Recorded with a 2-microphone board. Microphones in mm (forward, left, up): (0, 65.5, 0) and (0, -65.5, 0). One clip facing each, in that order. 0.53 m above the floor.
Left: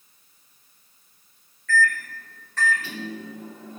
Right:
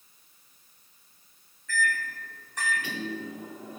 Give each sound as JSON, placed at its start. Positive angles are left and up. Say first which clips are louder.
{"t": 1.7, "sound": "a microwave", "louder": "left 6 dB", "side_deg": -15, "distance_m": 1.0}